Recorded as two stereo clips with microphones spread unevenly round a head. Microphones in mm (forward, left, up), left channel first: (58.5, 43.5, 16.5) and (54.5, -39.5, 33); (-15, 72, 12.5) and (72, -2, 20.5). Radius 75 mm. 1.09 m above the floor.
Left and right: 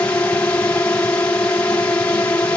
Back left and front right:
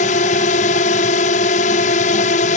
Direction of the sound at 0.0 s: 160° left.